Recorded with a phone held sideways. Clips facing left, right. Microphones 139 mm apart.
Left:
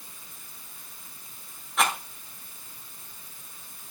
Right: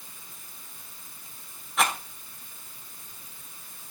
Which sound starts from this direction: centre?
A rattle, at 1.8 s.